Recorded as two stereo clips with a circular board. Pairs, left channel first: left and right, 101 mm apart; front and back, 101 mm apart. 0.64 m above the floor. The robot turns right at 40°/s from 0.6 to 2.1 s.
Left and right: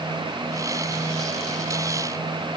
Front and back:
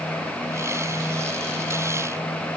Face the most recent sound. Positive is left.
No sound to turn to.